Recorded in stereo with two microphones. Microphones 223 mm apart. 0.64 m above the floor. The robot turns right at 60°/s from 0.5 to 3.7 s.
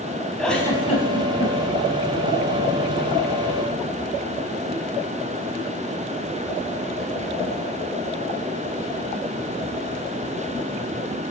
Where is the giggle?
5° left (ahead or behind), 3.5 m; by 1.5 s 65° left (ahead or behind), 3.5 m.